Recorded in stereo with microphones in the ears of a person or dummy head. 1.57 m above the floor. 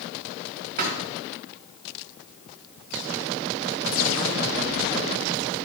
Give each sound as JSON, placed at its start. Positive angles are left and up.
{"t": 0.8, "sound": "a thud", "side_deg": -55, "distance_m": 3.0}